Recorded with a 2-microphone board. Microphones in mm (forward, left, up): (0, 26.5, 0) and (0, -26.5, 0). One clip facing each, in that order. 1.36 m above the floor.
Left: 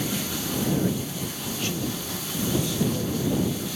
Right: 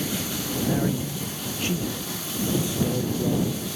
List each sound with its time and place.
0.6 s a man speaking: 25° right (ahead or behind)